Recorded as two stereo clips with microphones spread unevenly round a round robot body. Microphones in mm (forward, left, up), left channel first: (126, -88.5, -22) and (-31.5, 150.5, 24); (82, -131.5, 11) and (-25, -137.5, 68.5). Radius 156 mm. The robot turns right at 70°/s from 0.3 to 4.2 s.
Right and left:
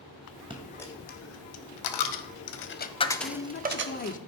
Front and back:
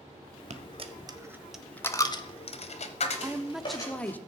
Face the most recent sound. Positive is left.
turn(degrees=-15)